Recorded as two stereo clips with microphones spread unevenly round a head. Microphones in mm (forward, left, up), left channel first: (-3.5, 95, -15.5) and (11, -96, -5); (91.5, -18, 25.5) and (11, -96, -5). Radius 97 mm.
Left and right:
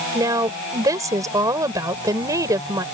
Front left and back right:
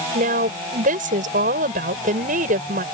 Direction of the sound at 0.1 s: 160° right.